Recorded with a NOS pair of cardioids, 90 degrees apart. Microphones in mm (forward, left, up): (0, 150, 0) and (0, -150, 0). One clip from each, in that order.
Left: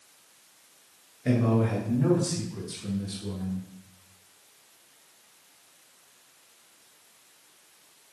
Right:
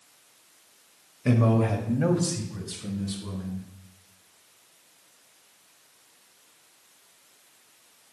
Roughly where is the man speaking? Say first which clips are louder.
Right 2 dB; ahead right.